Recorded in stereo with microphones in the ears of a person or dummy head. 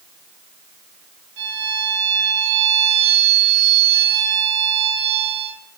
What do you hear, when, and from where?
1.4 s a violin: 65° right (ahead or behind), 4 m